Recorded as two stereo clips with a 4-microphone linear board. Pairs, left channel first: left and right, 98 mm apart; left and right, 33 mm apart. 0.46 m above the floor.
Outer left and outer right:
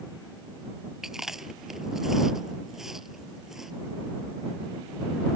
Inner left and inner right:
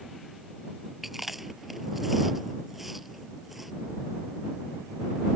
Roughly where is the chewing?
Centre.